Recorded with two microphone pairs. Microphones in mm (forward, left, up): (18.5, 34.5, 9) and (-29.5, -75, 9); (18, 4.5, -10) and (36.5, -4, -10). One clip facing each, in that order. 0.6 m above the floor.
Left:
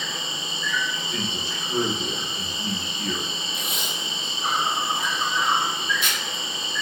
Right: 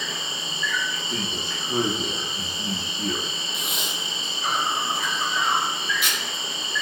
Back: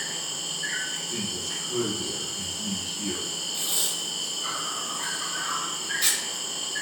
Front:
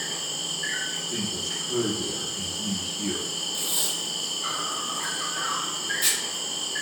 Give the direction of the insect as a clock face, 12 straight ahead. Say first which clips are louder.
Even, front 1 dB; 10 o'clock.